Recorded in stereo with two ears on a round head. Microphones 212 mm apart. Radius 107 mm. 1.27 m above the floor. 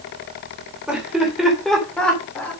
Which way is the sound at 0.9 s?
5° right (ahead or behind).